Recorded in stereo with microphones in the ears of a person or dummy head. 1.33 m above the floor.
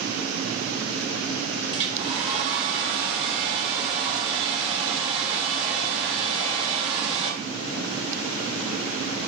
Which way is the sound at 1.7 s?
30° right (ahead or behind).